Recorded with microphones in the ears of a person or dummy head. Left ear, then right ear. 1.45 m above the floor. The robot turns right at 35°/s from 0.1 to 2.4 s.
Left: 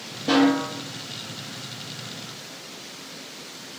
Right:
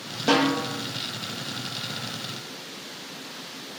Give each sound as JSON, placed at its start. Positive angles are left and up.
{"t": 0.3, "sound": "a snare drum", "side_deg": -55, "distance_m": 1.0}